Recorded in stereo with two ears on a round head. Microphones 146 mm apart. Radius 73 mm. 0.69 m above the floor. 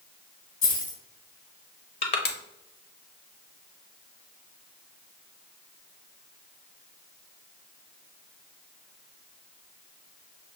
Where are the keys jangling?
50° left (ahead or behind), 1.9 m.